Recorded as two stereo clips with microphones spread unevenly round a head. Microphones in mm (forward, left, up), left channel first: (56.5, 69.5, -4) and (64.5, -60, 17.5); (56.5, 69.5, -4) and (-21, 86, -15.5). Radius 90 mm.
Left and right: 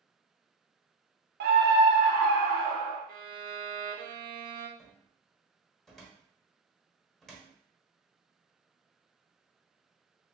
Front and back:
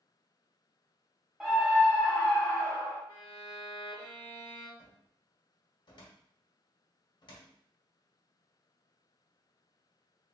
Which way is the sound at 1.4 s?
105° right.